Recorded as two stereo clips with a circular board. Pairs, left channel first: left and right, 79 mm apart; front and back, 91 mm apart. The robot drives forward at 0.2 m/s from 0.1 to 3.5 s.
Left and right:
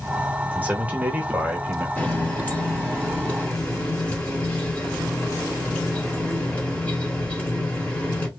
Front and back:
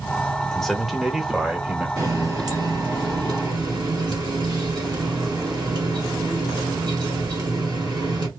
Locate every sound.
0.5 s a man speaking: 70° right, 0.8 m; by 1.9 s 125° right, 0.8 m
2.0 s a running tap: 150° left, 0.9 m; by 8.3 s 160° left, 1.1 m